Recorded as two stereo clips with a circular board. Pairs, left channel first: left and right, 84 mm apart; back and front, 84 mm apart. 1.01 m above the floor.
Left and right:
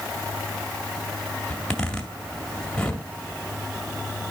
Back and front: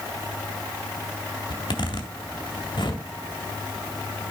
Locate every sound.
1.5 s a zipper: 170° left, 2 m